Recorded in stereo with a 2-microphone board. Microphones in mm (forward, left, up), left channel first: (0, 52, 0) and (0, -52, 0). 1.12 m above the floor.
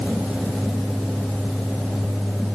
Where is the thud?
I don't hear a thud.